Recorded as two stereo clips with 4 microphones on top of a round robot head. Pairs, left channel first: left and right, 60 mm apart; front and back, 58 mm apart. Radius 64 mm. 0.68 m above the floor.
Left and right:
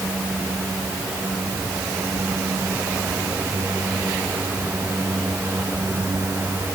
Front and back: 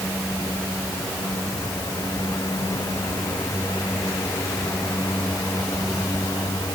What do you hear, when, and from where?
Only background noise.